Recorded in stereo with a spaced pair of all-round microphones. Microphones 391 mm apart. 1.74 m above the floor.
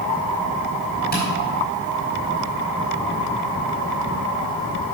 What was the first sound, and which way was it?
Tapping, 25° left (ahead or behind).